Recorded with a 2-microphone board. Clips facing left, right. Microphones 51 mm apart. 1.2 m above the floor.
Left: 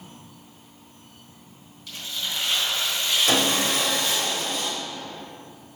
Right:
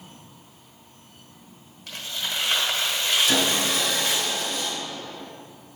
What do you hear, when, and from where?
1.9 s tearing paper: 50° right (ahead or behind), 1.3 m
3.3 s sawing: 55° left (ahead or behind), 1.6 m